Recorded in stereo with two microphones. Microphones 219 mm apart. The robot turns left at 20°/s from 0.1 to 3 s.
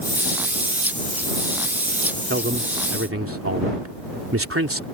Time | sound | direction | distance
2.3 | a man speaking | 55° right (ahead or behind) | ?